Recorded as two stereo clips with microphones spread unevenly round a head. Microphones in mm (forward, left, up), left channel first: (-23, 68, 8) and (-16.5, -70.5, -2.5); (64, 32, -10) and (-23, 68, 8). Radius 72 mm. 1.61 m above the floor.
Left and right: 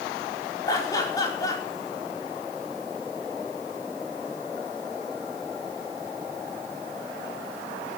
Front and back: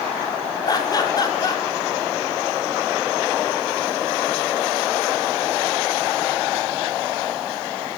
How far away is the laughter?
About 4.5 m.